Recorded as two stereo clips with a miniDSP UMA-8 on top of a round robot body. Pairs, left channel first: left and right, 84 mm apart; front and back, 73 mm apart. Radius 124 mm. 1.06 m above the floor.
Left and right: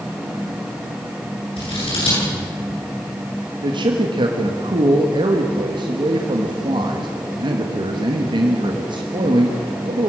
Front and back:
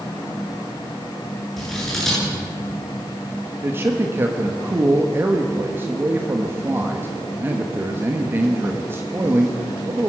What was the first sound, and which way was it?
Scissors, 85° left.